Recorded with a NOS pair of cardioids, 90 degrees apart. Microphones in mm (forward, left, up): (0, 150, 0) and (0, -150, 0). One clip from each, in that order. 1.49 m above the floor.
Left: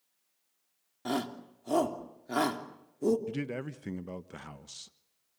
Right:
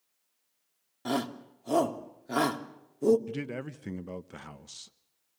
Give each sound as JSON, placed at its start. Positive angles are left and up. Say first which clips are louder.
{"t": 1.1, "sound": "a shout", "louder": "right 2 dB", "azimuth_deg": -5, "distance_m": 3.0}
{"t": 3.3, "sound": "a man speaking", "louder": "even", "azimuth_deg": 0, "distance_m": 1.2}